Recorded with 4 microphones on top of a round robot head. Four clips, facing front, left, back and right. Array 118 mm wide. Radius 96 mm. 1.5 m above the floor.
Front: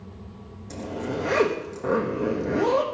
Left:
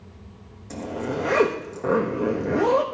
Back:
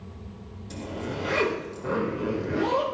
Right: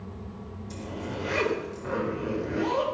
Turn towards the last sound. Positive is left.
turn(degrees=65)